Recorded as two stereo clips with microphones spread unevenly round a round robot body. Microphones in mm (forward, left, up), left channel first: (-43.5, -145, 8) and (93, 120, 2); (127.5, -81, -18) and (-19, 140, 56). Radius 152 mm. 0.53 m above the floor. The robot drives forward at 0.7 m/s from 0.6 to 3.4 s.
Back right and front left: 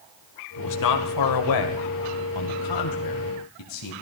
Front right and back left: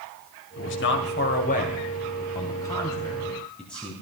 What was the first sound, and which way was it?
A man speaking, 90° right.